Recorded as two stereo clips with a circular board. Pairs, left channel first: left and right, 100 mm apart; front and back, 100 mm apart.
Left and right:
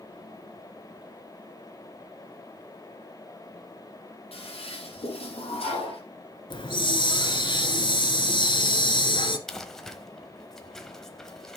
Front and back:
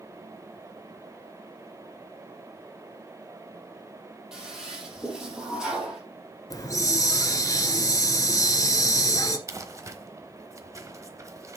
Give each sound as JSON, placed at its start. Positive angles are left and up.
{"t": 4.3, "sound": "a toilet flushing", "azimuth_deg": 95, "distance_m": 4.5}
{"t": 6.5, "sound": "a hiss", "azimuth_deg": 55, "distance_m": 1.3}
{"t": 9.5, "sound": "crumpling", "azimuth_deg": 175, "distance_m": 1.1}